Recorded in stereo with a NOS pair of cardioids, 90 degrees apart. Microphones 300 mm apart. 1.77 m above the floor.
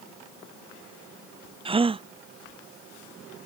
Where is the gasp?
20° right.